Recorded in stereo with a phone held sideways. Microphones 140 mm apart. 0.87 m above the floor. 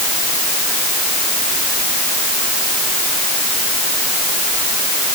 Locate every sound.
Only background noise.